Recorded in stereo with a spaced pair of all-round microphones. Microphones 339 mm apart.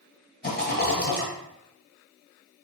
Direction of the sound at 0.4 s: 25° left (ahead or behind).